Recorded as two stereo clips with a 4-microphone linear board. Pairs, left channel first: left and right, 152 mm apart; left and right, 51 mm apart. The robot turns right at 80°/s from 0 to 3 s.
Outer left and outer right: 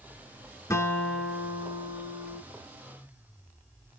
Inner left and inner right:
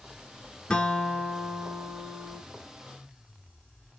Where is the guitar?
140° left, 0.7 m; by 2.4 s 80° right, 0.7 m.